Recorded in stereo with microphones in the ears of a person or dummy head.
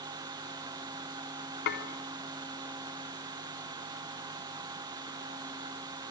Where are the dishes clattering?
55° left (ahead or behind), 3 m.